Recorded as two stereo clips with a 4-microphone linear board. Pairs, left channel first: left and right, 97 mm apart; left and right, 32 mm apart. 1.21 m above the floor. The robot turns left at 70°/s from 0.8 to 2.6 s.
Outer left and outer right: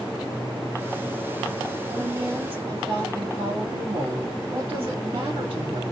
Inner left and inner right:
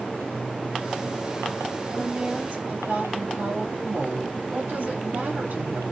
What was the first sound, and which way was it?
A woman speaking, 25° right.